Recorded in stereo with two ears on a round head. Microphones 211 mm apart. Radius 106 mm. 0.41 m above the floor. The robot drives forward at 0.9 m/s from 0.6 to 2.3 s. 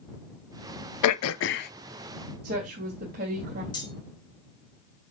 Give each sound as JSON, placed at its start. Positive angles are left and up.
{"t": 1.0, "sound": "throat clearing", "side_deg": 80, "distance_m": 0.5}
{"t": 2.4, "sound": "a woman speaking", "side_deg": -40, "distance_m": 2.5}
{"t": 3.7, "sound": "cutlery clinking", "side_deg": 20, "distance_m": 3.0}